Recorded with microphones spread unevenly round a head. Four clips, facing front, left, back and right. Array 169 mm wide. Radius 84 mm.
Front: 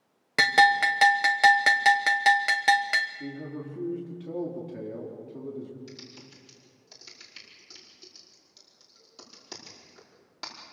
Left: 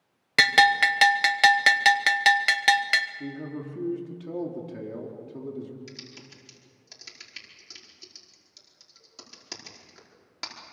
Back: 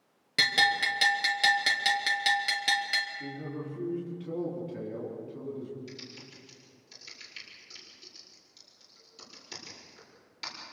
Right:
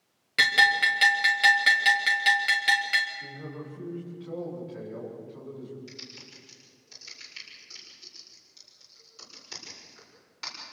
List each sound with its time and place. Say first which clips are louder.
0.4 s a bell: left 4 dB, front 8 dB; 35° left, 1.1 m
3.2 s a man speaking: left 5 dB, front 1 dB; 100° left, 4.5 m
5.9 s typing on a keyboard: left 2 dB, even; 45° left, 5 m